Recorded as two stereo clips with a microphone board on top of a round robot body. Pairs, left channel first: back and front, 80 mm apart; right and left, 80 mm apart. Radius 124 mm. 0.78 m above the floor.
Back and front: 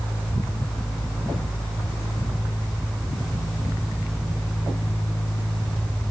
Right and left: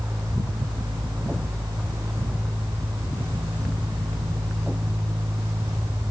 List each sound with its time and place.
Only background noise.